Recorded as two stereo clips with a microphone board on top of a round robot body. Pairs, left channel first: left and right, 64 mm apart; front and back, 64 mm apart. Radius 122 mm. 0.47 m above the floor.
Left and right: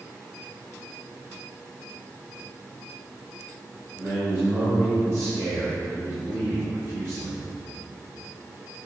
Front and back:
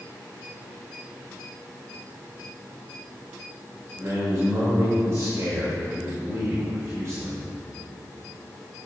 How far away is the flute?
No flute in this recording.